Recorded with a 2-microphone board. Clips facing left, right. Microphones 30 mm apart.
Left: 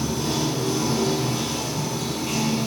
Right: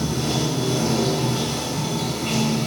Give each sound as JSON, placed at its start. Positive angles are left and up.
{"t": 0.0, "sound": "running water", "side_deg": -55, "distance_m": 1.5}